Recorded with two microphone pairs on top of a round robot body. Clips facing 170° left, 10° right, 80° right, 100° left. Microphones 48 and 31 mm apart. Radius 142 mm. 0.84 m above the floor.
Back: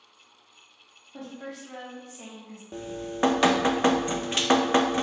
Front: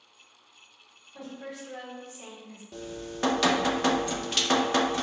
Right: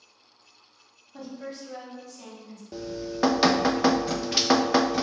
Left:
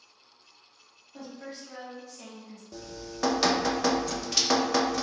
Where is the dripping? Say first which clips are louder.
Back 4 dB, right 8 dB; 140° right, 0.5 m.